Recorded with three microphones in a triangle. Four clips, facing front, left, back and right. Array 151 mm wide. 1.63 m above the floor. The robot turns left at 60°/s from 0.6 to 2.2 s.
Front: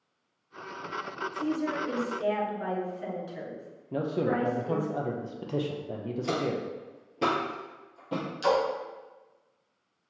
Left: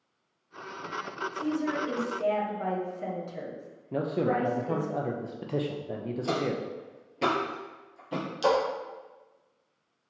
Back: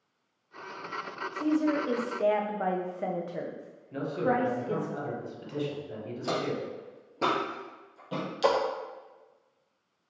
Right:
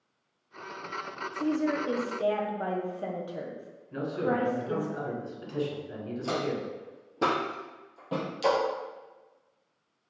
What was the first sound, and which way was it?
A woman speaking, 110° right.